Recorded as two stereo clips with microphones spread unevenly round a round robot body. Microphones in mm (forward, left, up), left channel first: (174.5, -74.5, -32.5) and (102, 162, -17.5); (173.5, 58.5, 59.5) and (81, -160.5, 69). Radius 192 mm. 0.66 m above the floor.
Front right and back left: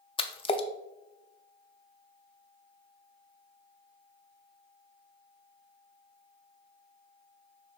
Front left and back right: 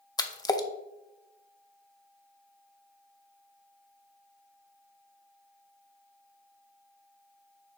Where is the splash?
5° right, 0.6 m.